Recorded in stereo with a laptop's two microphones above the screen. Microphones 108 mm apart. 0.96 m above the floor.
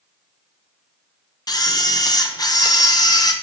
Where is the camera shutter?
35° left (ahead or behind), 0.9 m.